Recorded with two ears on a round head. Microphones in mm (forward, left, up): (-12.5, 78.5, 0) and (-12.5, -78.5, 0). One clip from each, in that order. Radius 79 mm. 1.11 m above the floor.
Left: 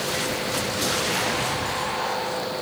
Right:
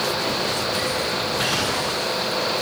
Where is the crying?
I don't hear crying.